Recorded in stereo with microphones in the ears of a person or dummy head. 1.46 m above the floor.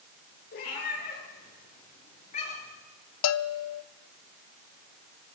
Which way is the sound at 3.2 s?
80° left.